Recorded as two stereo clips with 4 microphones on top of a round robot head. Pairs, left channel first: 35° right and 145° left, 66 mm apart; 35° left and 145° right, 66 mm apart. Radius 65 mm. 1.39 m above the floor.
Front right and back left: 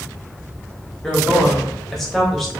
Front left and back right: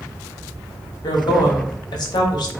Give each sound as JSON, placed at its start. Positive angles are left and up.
{"t": 1.0, "sound": "a woman speaking", "azimuth_deg": 50, "distance_m": 0.8}